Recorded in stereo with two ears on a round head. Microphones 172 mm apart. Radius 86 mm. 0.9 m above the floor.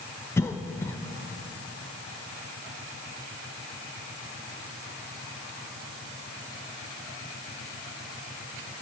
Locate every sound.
0.4 s a cough: 15° left (ahead or behind), 0.6 m